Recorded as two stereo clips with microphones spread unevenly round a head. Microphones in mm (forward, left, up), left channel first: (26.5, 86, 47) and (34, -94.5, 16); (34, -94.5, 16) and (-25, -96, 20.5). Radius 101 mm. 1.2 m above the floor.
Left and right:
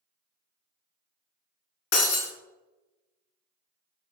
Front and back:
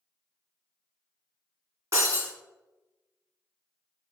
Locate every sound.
1.9 s breaking glass: 120° left, 2.5 m